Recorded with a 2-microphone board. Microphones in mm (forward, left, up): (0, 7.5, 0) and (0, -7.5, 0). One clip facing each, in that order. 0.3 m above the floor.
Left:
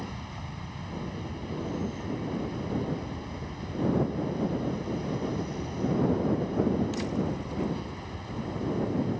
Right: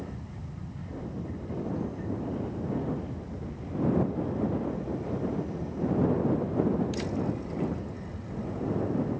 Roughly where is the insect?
Left.